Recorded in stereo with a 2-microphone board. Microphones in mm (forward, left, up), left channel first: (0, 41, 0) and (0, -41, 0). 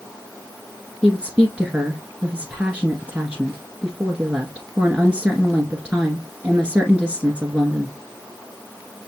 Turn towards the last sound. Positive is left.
turn(degrees=-15)  # may be behind; listen again after turning